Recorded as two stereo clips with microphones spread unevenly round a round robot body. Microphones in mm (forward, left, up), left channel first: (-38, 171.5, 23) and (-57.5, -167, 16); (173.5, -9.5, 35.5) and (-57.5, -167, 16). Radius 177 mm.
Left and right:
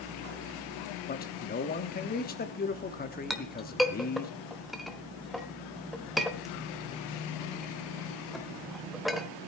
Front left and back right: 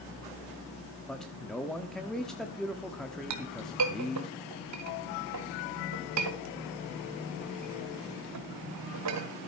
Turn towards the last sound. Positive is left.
turn(degrees=175)